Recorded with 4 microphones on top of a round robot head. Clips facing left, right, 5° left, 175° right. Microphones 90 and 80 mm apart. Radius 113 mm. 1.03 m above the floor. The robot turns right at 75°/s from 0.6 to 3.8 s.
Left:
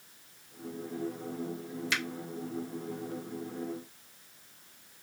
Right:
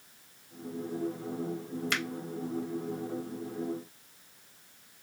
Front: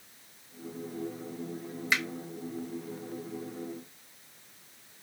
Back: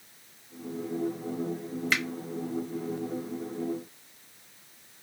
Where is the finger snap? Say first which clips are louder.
Even, even; 70° right, 0.9 m; by 2.0 s 60° right, 0.9 m.